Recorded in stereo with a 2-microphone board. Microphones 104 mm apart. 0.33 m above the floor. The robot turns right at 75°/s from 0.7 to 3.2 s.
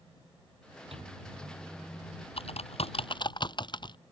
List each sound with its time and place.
0.9 s a microwave: 65° right; by 2.3 s 35° left
2.4 s typing on a keyboard: 70° left (ahead or behind); by 4.0 s 45° left (ahead or behind)